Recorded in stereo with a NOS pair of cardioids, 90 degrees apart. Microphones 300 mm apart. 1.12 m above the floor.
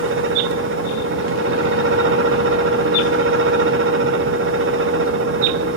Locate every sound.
0.0 s a fan: 40° right, 0.7 m